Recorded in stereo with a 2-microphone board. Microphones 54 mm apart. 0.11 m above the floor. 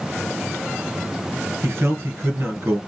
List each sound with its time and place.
1.6 s a man speaking: 50° right (ahead or behind), 1.9 m